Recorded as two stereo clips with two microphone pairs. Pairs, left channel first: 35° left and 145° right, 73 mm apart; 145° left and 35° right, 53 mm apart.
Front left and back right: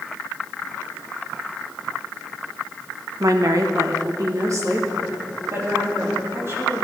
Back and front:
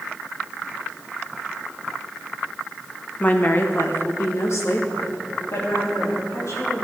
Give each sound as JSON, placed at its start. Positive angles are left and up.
{"t": 3.2, "sound": "a woman speaking", "azimuth_deg": -160, "distance_m": 0.8}